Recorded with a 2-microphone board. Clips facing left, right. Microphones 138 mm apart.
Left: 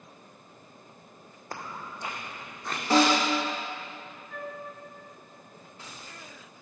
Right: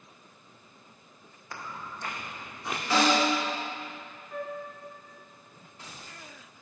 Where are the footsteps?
45° left (ahead or behind), 0.8 m; by 2.8 s 10° right (ahead or behind), 1.2 m.